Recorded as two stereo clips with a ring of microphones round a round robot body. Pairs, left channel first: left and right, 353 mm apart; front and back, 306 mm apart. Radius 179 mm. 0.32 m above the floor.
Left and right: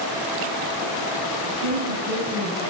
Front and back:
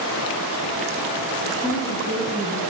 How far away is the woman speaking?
About 5.5 m.